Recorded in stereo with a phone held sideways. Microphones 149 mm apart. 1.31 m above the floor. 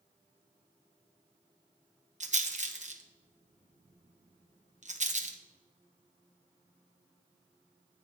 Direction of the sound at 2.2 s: 55° right (ahead or behind).